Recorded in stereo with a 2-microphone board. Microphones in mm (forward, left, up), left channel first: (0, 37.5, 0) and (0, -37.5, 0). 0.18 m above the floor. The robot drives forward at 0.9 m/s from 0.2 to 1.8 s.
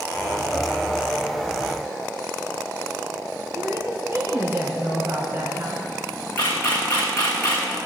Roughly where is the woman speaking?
Right.